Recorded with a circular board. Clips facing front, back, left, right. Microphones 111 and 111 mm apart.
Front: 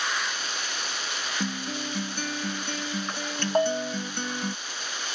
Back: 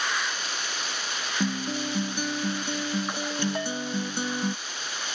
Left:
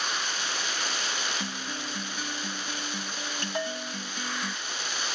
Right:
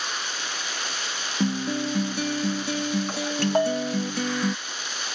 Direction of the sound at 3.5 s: 45° right.